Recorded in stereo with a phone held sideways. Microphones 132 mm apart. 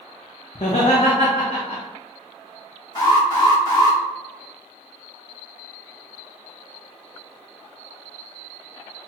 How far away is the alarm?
About 1.4 m.